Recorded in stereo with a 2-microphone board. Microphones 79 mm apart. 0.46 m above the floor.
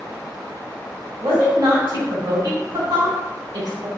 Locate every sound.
1.2 s a woman speaking: 65° right (ahead or behind), 1.9 m